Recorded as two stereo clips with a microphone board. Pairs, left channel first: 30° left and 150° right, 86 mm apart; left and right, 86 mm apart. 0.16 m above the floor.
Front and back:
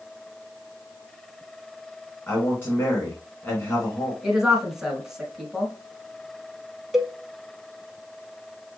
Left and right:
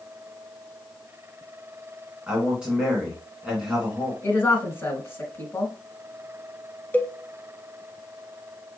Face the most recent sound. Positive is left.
turn(degrees=130)